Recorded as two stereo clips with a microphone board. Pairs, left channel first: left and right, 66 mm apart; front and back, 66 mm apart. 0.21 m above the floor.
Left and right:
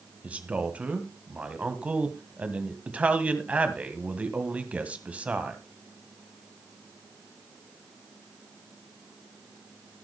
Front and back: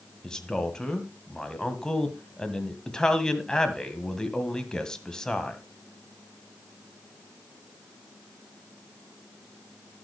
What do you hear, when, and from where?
0.2 s a man speaking: 65° right, 1.7 m